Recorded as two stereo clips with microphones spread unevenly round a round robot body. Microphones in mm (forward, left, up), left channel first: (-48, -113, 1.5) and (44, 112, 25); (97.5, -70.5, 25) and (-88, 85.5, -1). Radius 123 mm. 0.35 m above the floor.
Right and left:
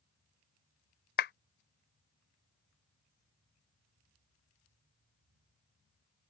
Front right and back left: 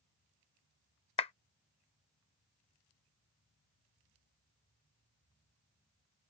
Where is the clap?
105° right.